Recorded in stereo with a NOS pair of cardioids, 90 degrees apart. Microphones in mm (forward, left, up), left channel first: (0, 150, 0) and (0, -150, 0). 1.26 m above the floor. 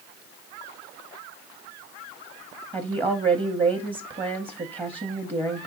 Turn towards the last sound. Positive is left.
turn(degrees=-20)